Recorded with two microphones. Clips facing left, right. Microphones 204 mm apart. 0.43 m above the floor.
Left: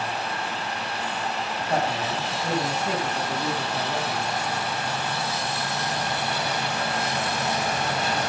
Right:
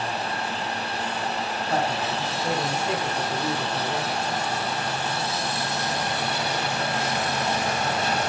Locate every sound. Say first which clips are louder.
1.7 s a man speaking: left 1 dB; 15° left (ahead or behind), 4 m